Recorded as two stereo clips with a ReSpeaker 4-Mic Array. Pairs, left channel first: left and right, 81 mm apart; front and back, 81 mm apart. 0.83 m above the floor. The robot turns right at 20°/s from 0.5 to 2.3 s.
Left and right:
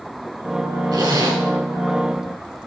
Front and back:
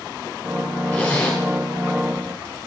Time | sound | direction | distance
0.9 | a zipper | 70° right | 1.6 m